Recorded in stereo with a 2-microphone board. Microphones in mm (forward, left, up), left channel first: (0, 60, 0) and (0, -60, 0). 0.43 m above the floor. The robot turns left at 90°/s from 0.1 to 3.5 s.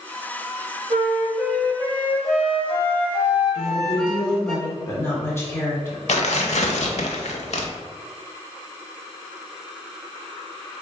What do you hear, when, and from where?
0.9 s a flute: 120° right, 1.1 m; by 4.5 s 5° left, 1.1 m
3.5 s a woman speaking: 20° left (ahead or behind), 1.1 m
6.1 s tearing paper: 70° left (ahead or behind), 0.7 m